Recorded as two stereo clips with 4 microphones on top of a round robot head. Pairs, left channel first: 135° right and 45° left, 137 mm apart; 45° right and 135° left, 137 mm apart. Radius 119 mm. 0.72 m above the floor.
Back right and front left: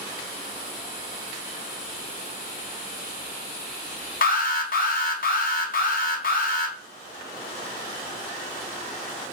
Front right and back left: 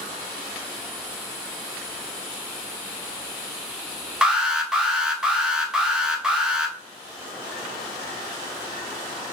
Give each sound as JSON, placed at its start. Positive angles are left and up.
{"t": 4.2, "sound": "an alarm", "azimuth_deg": -140, "distance_m": 0.7}